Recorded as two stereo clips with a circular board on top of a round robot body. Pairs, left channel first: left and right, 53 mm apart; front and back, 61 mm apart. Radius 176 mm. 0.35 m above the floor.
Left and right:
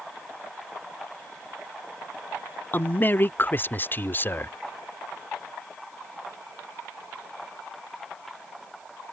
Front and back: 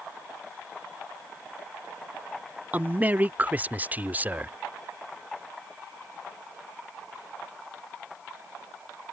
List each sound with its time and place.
2.7 s a man speaking: 125° left